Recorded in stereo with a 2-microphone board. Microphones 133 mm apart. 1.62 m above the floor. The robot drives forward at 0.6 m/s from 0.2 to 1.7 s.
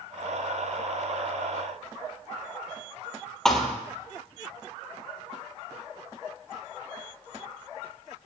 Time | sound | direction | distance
3.5 | a thud | 5° left (ahead or behind) | 2 m